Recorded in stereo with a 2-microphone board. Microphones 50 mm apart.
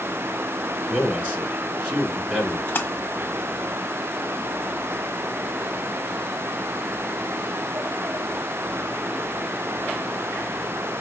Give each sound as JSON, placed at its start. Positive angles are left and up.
{"t": 0.9, "sound": "a man speaking", "side_deg": -15, "distance_m": 4.0}
{"t": 2.7, "sound": "a splash", "side_deg": 40, "distance_m": 1.4}